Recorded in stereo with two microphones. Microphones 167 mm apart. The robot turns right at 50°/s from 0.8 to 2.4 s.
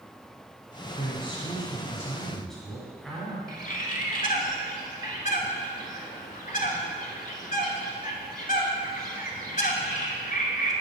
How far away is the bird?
About 0.8 m.